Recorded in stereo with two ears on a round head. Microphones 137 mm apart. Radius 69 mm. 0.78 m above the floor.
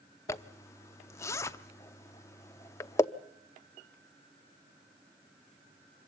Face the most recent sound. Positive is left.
turn(degrees=20)  # may be behind; listen again after turning